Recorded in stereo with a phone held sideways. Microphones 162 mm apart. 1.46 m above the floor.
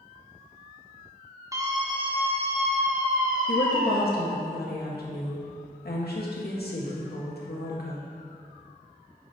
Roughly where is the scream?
Right.